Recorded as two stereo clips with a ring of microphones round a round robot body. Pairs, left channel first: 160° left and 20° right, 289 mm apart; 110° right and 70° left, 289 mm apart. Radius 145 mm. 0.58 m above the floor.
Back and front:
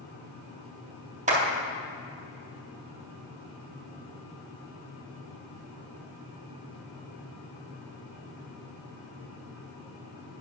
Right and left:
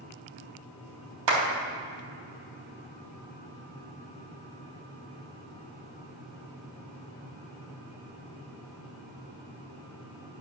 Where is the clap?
45° left, 3.5 m.